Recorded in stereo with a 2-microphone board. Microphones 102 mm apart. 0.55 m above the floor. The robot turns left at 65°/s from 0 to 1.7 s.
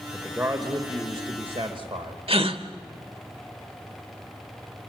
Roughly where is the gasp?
Right.